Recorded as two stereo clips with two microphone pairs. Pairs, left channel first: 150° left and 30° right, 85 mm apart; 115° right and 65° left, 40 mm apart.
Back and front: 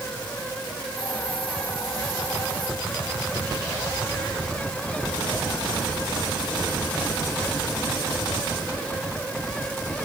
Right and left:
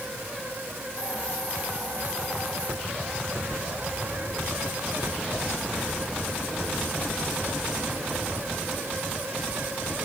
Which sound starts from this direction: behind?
A hiss, at 1.0 s.